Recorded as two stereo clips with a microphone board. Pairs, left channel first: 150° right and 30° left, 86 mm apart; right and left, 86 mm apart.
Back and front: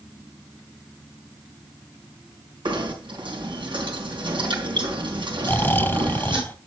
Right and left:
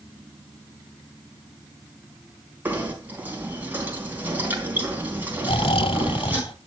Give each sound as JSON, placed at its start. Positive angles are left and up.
{"t": 2.6, "sound": "knocking", "azimuth_deg": 20, "distance_m": 4.0}
{"t": 5.4, "sound": "snoring", "azimuth_deg": -85, "distance_m": 0.8}